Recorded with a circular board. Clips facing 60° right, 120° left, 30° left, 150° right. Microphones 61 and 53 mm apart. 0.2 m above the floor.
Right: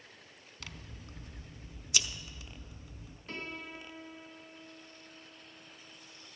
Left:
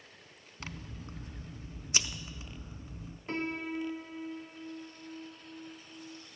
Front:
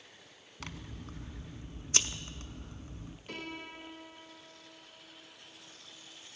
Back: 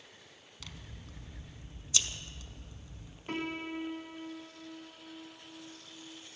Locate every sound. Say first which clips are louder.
0.6 s scissors: left 5 dB, front 6 dB; 65° left, 0.5 m
3.3 s a piano: left 8 dB, back 7 dB; 170° left, 0.8 m